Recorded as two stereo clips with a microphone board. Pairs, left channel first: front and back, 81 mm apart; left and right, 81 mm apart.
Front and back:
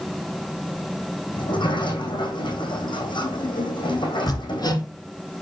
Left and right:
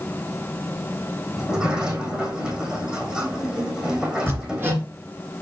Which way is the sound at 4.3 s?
30° right.